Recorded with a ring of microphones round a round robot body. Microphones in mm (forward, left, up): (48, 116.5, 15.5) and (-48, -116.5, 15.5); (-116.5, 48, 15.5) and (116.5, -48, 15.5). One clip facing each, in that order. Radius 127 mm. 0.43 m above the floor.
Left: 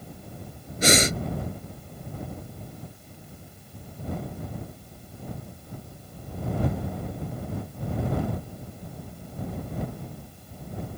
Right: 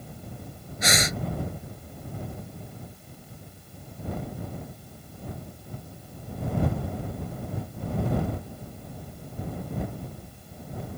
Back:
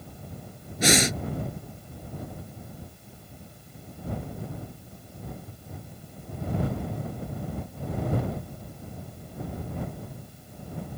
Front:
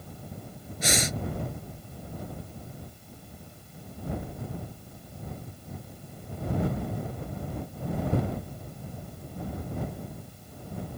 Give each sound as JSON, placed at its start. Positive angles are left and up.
{"t": 0.8, "sound": "breathing", "azimuth_deg": 125}